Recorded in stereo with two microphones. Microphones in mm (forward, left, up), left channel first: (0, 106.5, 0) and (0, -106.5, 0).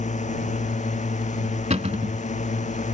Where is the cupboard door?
30° right (ahead or behind).